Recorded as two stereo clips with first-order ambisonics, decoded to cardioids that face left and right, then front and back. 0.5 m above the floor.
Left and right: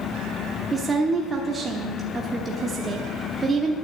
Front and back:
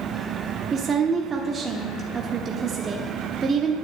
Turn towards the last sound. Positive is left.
turn(degrees=-140)